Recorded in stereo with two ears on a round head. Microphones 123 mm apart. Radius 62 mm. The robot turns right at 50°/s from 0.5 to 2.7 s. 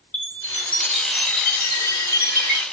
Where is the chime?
10° left (ahead or behind), 1.4 m; by 2.6 s 15° left (ahead or behind), 1.4 m.